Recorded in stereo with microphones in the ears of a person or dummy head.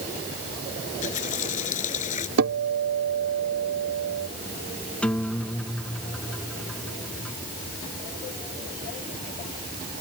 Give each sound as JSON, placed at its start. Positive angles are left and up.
{"t": 0.9, "sound": "a running tap", "side_deg": 40}
{"t": 2.4, "sound": "a guitar", "side_deg": -70}
{"t": 5.0, "sound": "a guitar", "side_deg": 5}